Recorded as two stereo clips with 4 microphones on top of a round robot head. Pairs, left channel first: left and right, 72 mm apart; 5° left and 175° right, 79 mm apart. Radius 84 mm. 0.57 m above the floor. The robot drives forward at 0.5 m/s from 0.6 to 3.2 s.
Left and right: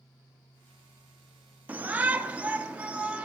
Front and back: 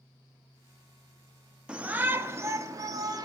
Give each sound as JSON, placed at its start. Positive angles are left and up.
{"t": 1.7, "sound": "a shout", "azimuth_deg": -115, "distance_m": 0.9}